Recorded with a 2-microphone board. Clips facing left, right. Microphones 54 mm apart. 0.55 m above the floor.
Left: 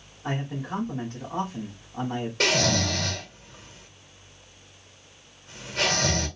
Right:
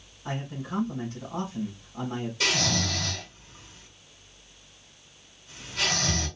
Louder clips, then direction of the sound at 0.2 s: Left 4 dB; 70° left (ahead or behind).